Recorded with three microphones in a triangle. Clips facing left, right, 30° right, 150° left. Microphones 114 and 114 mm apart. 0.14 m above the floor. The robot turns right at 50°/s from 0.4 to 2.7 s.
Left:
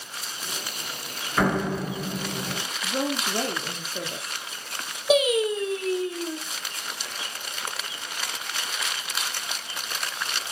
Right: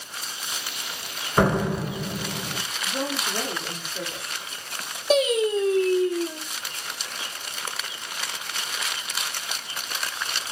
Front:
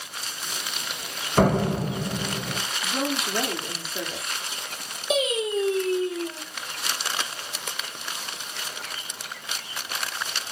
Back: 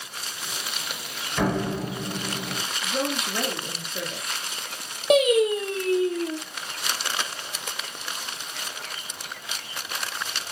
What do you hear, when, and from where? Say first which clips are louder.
1.4 s a door slam: right 2 dB, front 4 dB; 35° right, 2.0 m; by 2.6 s 30° left, 2.0 m
2.8 s a woman speaking: left 2 dB, even; 55° left, 2 m
5.1 s singing: even, back 6 dB; 170° left, 3 m